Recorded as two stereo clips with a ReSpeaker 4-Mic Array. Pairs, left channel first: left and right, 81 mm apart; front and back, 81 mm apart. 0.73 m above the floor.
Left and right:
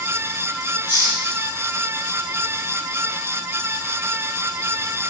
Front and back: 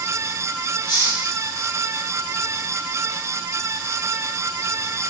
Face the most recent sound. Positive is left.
turn(degrees=-30)